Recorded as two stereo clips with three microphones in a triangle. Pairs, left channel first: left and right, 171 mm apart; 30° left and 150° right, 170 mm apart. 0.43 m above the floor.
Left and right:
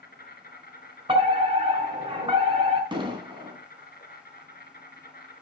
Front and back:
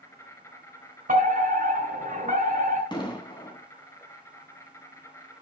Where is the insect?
105° left, 1.7 m.